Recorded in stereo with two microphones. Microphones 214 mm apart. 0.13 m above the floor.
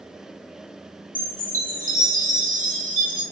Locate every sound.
1.1 s a chime: 40° right (ahead or behind), 1.0 m